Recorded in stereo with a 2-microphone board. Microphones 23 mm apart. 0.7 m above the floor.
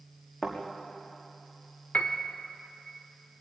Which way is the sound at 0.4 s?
25° left (ahead or behind).